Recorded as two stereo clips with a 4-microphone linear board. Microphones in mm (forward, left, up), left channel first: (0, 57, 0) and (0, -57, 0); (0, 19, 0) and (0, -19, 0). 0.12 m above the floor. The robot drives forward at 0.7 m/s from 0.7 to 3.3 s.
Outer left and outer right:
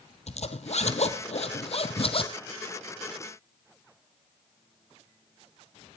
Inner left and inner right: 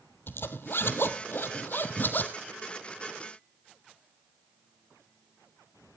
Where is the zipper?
70° left (ahead or behind), 1.6 m; by 2.3 s 55° left (ahead or behind), 1.9 m.